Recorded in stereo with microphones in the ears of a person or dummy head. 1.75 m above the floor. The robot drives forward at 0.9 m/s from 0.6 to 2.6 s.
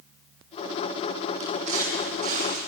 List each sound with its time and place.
1.4 s footsteps: 45° right (ahead or behind), 6 m; by 2.6 s 50° right (ahead or behind), 6 m